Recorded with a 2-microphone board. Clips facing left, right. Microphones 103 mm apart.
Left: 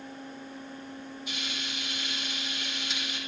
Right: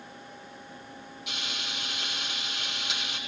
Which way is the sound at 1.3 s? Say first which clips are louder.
Right 2 dB; 70° right (ahead or behind).